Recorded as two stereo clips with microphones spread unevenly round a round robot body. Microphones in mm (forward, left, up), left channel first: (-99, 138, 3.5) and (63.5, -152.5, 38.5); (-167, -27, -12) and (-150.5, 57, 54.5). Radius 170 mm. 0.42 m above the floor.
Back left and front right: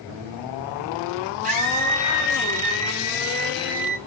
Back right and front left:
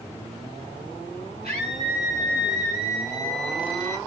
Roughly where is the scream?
Ahead.